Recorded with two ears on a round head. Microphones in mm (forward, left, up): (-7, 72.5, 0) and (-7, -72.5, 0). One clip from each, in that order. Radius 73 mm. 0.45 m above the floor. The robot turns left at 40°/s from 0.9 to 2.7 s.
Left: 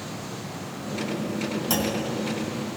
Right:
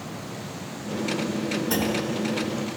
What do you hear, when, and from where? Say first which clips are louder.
1.7 s a clunk: even; 65° left (ahead or behind), 3 m; by 2.0 s 80° left, 3 m